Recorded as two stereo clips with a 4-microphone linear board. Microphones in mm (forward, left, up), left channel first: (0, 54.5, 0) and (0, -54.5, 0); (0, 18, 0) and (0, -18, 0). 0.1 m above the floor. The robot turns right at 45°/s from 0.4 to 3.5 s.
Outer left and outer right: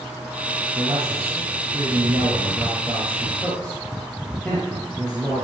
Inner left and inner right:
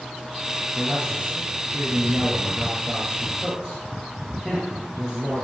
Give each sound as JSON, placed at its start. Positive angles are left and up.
{"t": 0.8, "sound": "a man speaking", "azimuth_deg": -105, "distance_m": 3.0}